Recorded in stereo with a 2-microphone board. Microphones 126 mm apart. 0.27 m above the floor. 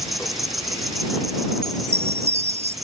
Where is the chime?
20° right (ahead or behind).